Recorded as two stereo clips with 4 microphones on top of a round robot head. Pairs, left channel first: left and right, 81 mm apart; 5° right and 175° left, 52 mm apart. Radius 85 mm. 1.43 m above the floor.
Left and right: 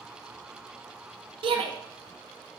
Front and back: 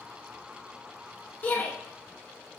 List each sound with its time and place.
1.4 s a shout: 70° right, 1.0 m